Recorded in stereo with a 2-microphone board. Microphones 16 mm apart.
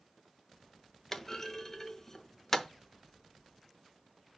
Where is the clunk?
20° left (ahead or behind), 0.8 m.